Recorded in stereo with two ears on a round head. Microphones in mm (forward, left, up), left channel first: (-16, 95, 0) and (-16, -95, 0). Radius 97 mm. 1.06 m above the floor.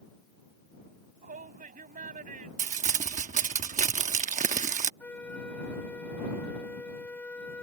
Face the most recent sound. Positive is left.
turn(degrees=5)  # may be behind; listen again after turning